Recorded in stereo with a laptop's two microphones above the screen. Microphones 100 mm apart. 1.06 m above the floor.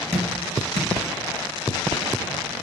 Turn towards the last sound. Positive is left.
turn(degrees=-85)